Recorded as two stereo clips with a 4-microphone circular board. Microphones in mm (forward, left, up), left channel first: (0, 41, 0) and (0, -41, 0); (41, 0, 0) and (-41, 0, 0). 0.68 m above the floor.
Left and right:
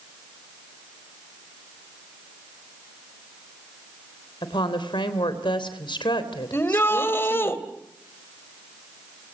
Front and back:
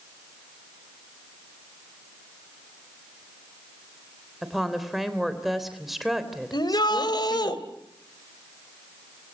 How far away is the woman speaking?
About 3.5 m.